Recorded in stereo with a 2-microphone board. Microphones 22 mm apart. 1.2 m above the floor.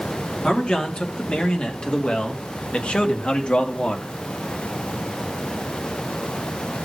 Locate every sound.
0.4 s a man speaking: 45° left (ahead or behind), 2.5 m; by 4.1 s 75° left (ahead or behind), 1.7 m